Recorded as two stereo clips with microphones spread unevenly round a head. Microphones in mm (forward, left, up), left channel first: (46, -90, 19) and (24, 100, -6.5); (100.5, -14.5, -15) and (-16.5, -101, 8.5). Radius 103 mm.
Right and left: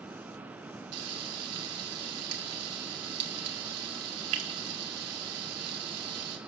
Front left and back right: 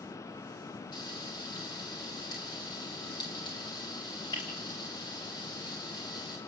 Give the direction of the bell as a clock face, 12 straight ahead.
No bell in this recording.